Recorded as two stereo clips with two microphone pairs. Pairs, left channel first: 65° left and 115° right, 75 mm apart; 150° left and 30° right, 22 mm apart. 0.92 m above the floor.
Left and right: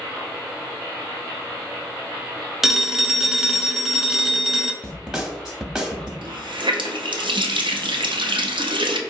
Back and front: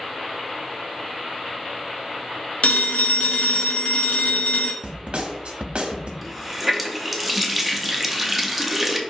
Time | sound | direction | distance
2.6 | a phone ringing | 160° left | 0.6 m
4.8 | a snare drum | 40° right | 0.7 m
6.2 | a running tap | 110° right | 0.5 m